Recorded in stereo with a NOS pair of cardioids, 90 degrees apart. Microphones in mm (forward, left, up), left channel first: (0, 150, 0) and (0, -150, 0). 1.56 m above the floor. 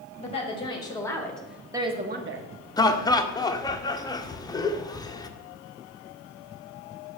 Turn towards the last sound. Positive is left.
turn(degrees=15)